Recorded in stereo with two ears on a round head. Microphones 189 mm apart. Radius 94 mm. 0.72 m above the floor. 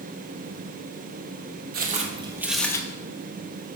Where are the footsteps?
40° right (ahead or behind), 0.9 m; by 2.8 s 15° left (ahead or behind), 0.7 m.